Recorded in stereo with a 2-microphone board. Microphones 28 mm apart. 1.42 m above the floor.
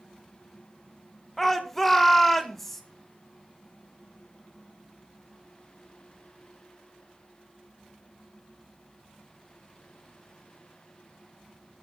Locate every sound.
1.4 s a shout: 5° left (ahead or behind), 1.8 m